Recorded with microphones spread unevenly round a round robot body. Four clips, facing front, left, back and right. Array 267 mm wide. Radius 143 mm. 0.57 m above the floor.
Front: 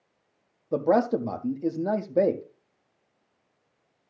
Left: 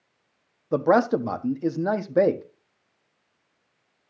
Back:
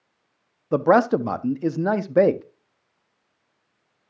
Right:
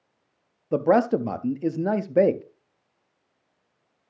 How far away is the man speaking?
About 0.7 m.